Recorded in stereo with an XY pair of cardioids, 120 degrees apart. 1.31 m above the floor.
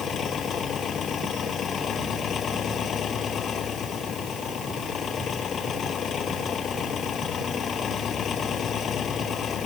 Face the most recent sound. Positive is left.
turn(degrees=45)